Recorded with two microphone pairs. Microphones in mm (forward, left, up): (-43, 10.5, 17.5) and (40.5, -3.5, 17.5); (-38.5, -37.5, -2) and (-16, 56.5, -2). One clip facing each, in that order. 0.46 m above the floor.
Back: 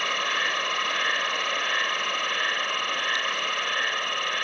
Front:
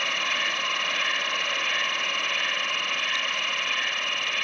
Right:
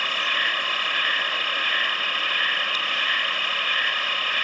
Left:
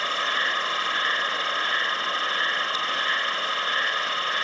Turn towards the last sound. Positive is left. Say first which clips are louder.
# back 2 dB, left 1 dB
turn(degrees=135)